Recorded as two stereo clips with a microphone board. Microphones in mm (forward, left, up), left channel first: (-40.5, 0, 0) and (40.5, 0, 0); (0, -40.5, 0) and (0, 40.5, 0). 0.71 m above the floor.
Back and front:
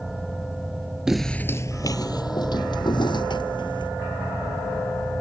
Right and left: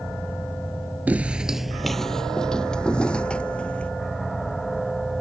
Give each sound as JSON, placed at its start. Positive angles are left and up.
{"t": 1.1, "sound": "footsteps", "azimuth_deg": 65}